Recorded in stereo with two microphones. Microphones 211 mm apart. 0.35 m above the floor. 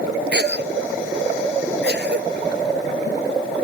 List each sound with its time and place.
0.3 s a cough: 55° right (ahead or behind)